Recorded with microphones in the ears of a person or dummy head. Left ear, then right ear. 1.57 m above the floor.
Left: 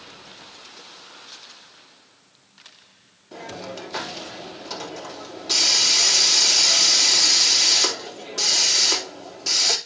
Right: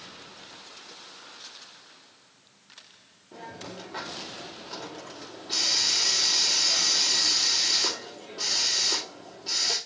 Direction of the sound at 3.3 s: 80° left.